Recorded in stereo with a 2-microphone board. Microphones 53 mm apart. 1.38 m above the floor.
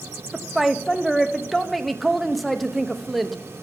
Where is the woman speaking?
Centre (ahead or behind), 0.5 m.